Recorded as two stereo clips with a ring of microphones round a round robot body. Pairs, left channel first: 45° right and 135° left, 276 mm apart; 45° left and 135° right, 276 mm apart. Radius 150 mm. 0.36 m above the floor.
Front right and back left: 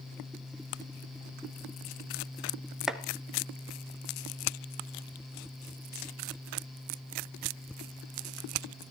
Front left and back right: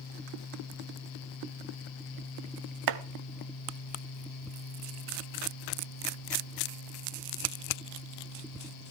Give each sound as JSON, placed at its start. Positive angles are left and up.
{"t": 2.9, "sound": "chopping", "azimuth_deg": -135, "distance_m": 0.9}